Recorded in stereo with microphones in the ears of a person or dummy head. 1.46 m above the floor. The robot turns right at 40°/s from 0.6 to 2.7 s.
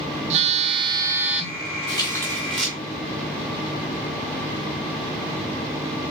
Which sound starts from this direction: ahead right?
A phone buzzing, at 0.3 s.